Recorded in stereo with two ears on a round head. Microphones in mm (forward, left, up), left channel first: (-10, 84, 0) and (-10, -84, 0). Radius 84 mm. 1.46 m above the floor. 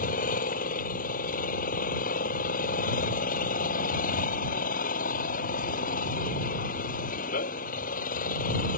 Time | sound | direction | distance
0.0 | an engine running | 50° left (ahead or behind) | ?